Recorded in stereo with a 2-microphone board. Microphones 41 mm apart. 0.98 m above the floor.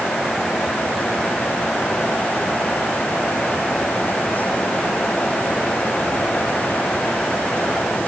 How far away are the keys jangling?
No keys jangling in this recording.